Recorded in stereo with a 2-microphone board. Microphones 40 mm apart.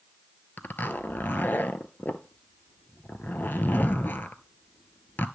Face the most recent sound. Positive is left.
turn(degrees=55)  # may be behind; listen again after turning